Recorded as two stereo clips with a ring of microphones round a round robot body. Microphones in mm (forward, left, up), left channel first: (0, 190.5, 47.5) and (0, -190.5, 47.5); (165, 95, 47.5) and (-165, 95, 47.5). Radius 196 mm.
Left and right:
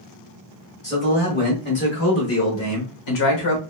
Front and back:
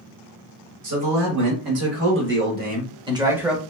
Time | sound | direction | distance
0.8 | a man speaking | 160° left | 1.7 m